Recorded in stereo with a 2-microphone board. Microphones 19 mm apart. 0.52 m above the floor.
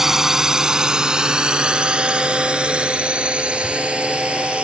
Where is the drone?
20° right (ahead or behind); by 4.6 s 80° right.